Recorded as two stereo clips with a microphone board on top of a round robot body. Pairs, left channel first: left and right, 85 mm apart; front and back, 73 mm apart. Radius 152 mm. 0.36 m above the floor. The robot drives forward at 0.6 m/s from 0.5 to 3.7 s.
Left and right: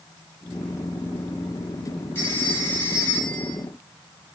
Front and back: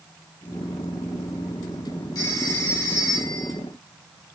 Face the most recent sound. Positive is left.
turn(degrees=35)